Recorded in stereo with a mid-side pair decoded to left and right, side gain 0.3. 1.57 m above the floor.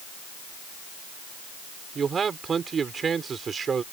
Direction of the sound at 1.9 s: 60° right.